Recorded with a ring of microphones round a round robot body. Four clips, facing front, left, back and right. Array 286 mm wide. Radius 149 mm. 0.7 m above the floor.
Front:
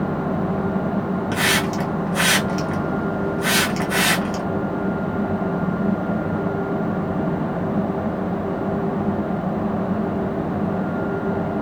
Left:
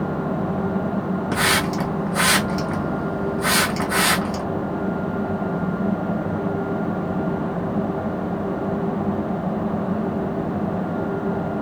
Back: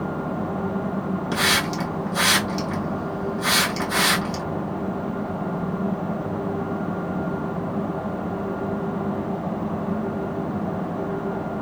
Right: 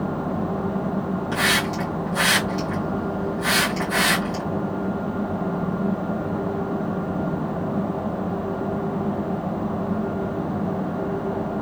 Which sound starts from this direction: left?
A hiss, at 1.3 s.